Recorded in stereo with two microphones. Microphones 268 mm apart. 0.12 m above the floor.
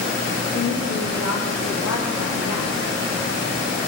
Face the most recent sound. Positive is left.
turn(degrees=65)  # may be behind; listen again after turning